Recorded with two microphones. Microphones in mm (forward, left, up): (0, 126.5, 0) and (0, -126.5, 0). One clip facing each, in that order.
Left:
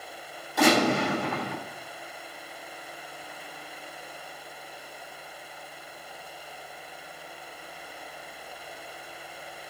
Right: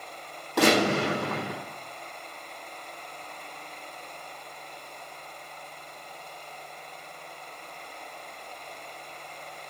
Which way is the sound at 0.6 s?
80° right.